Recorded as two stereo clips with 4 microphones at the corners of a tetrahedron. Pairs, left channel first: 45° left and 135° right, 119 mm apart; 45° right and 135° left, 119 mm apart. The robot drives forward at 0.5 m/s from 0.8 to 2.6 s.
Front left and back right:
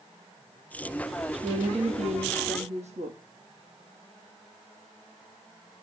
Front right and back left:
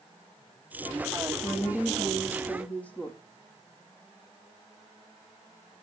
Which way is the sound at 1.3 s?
115° right.